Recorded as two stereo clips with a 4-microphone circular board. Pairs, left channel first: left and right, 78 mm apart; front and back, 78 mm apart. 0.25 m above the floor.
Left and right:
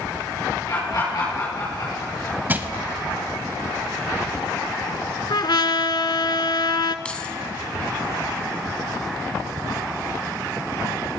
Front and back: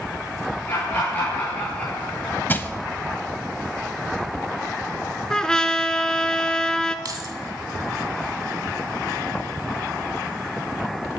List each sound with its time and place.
0.7 s laughter: 60° left, 6.5 m; by 2.4 s 70° left, 5.5 m
2.5 s crushing: 45° right, 0.8 m
5.3 s a trumpet: 80° left, 0.8 m
7.0 s keys jangling: 165° left, 1.3 m